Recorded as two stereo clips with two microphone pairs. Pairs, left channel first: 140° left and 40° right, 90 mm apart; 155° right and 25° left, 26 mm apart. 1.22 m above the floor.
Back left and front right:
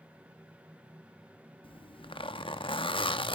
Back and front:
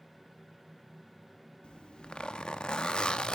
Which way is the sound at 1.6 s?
155° left.